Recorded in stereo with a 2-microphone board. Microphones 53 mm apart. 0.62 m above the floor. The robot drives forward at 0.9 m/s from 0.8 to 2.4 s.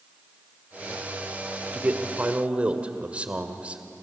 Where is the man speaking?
35° right (ahead or behind), 1.7 m; by 3.8 s 25° right (ahead or behind), 2 m.